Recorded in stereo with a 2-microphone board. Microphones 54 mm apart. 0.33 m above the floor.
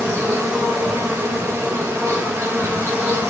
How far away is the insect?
About 4 m.